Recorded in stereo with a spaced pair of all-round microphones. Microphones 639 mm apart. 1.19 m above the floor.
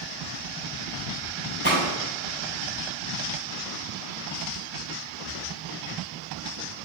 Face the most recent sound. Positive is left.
turn(degrees=20)  # may be behind; listen again after turning